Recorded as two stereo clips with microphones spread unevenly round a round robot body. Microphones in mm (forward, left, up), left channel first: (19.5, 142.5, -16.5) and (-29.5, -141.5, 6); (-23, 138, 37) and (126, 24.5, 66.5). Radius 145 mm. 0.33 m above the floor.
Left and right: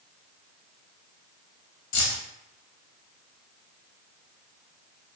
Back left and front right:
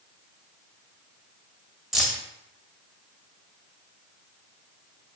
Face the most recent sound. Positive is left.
turn(degrees=60)